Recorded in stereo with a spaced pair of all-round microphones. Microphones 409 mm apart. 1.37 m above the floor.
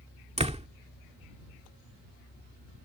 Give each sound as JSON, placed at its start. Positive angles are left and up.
{"t": 0.4, "sound": "a door slam", "side_deg": -15}